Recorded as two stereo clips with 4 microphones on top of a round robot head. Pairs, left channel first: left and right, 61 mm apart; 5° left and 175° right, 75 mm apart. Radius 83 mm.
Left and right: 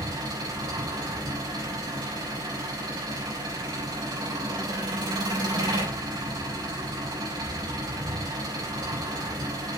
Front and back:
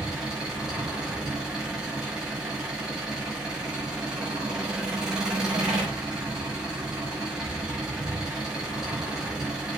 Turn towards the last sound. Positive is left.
turn(degrees=-95)